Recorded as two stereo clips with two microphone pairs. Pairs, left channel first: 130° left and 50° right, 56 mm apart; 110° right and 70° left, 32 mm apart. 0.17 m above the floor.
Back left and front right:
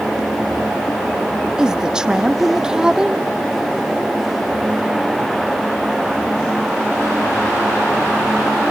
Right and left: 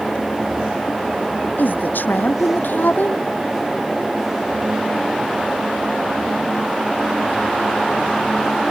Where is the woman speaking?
125° right.